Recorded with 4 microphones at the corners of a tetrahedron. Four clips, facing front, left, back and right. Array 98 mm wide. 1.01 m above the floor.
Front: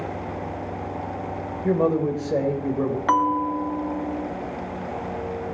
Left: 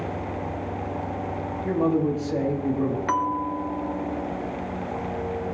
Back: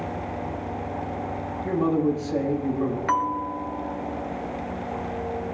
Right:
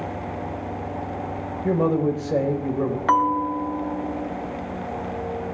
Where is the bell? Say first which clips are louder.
Right 5 dB, front 7 dB; 50° right, 0.9 m.